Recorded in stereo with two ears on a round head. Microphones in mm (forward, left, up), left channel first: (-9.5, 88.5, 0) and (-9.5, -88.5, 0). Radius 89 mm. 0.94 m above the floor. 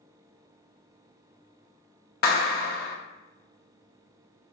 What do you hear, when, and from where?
2.2 s a clap: 50° left (ahead or behind), 0.8 m